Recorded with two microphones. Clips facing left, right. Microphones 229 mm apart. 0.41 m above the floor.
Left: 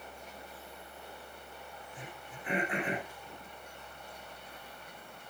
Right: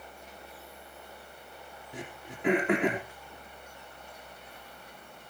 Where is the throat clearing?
90° right, 3.5 m.